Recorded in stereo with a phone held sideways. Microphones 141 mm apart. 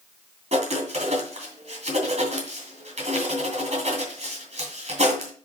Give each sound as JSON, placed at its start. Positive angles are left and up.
{"t": 0.5, "sound": "writing", "side_deg": -55, "distance_m": 2.5}